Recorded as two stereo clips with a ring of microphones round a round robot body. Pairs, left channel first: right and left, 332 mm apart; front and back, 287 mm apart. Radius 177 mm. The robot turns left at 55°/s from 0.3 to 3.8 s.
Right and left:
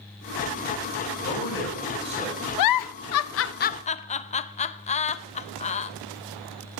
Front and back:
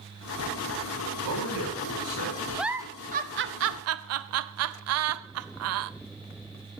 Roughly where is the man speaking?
Behind right.